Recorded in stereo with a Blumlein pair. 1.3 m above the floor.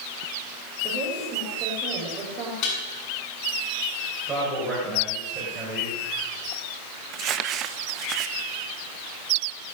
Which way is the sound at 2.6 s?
40° left.